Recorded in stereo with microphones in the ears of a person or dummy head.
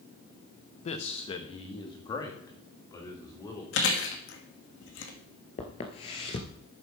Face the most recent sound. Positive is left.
turn(degrees=25)  # may be behind; listen again after turning